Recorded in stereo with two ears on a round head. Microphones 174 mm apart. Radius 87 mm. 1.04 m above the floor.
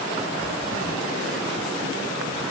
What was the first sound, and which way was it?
Only background noise.